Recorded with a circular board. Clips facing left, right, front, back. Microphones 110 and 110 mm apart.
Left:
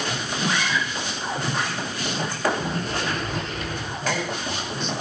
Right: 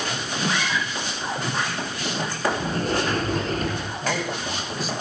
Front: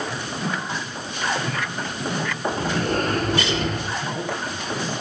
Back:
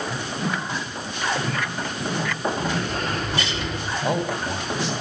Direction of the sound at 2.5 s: 45° right.